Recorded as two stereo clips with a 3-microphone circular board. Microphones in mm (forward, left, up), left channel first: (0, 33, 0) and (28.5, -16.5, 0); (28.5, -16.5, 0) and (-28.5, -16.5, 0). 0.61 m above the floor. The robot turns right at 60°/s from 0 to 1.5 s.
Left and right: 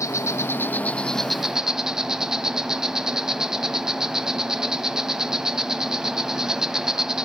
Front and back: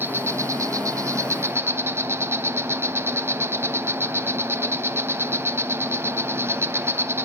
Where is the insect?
130° left, 0.7 m; by 7.3 s 140° right, 0.7 m.